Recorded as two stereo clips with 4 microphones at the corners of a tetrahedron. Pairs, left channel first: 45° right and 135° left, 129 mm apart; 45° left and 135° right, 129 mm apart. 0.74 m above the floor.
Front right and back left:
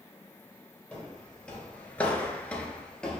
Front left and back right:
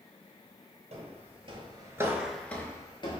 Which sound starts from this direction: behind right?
Footsteps, at 0.9 s.